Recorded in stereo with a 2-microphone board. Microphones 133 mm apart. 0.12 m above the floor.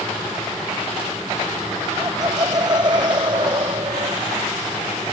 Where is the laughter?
30° right (ahead or behind); by 4.2 s 40° right (ahead or behind).